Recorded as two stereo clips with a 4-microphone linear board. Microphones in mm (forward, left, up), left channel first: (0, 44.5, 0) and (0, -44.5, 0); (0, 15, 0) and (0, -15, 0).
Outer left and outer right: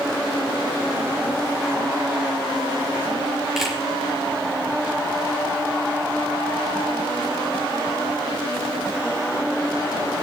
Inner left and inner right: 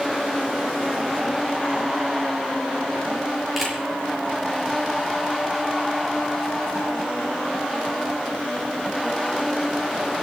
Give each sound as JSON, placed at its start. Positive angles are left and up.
{"t": 3.6, "sound": "a camera shutter", "side_deg": -5, "distance_m": 6.0}